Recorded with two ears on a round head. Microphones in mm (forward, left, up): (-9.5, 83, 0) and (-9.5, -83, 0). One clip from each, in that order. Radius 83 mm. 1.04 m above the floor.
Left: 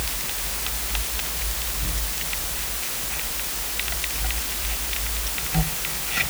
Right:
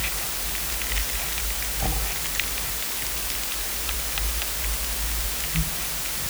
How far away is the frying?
I don't hear frying.